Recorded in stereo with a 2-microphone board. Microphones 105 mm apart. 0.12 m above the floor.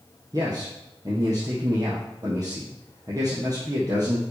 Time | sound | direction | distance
0.3 | a man speaking | 35° right (ahead or behind) | 2.5 m